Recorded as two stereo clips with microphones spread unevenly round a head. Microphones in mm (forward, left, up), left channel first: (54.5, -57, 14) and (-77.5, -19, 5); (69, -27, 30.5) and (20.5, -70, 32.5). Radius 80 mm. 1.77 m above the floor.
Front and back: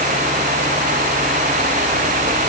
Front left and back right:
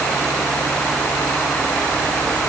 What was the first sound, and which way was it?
Only background noise.